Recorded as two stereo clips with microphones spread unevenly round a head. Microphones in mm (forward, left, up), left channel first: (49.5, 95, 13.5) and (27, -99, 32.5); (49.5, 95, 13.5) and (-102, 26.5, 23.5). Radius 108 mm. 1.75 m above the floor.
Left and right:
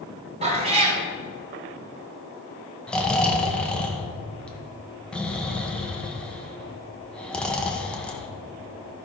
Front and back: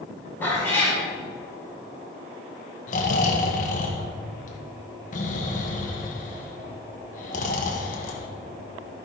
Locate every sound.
0.4 s a cat meowing: 55° right, 1.9 m
2.9 s snoring: 5° right, 1.0 m